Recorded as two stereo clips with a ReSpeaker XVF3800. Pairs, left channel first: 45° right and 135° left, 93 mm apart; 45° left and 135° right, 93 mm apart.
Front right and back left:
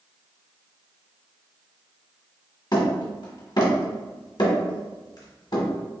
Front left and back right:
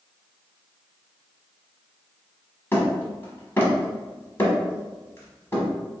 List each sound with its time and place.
2.7 s hammering: 20° right, 1.3 m